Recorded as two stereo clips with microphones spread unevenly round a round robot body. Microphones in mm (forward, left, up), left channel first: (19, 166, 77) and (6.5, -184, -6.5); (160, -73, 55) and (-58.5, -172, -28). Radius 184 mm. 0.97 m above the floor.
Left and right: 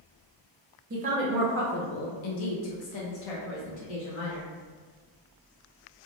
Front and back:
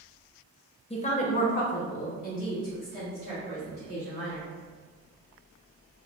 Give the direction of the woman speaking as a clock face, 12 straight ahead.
2 o'clock.